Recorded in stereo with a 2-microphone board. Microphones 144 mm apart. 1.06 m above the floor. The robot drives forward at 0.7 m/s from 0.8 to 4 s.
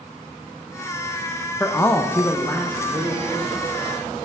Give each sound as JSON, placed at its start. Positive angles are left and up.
{"t": 1.6, "sound": "a man speaking", "side_deg": 15, "distance_m": 0.6}